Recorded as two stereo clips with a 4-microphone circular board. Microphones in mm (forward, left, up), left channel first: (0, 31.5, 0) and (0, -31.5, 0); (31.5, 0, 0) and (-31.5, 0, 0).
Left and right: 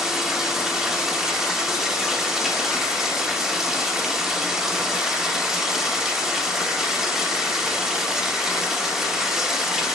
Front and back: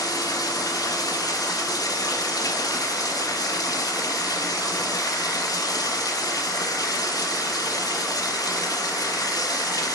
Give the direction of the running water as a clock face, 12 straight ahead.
12 o'clock.